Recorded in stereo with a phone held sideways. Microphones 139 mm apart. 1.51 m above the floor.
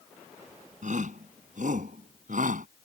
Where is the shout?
60° right (ahead or behind); by 2.7 s 70° right (ahead or behind).